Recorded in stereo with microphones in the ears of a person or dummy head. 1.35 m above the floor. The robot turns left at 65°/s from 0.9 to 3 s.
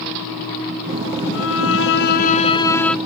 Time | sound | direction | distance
1.3 | a violin | 115° left | ?